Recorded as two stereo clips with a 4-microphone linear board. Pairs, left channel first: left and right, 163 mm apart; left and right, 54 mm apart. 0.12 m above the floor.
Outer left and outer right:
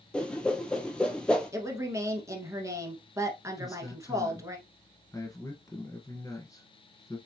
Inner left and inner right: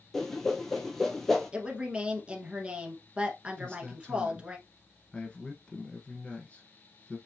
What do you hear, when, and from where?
0.1 s a whoosh: 5° left (ahead or behind), 0.7 m
1.5 s a woman speaking: 20° right (ahead or behind), 1.2 m
3.6 s a man speaking: 20° left (ahead or behind), 1.3 m